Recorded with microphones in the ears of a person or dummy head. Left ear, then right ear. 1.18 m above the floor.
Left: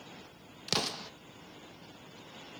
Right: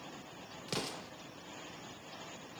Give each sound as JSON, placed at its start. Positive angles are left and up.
{"t": 0.7, "sound": "an explosion", "side_deg": 40, "distance_m": 0.7}